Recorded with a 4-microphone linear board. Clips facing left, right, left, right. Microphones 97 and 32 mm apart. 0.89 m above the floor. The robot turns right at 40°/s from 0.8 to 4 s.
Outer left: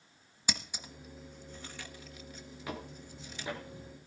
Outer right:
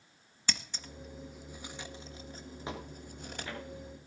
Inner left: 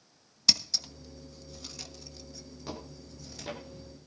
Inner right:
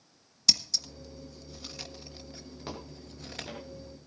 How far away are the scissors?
About 1.4 m.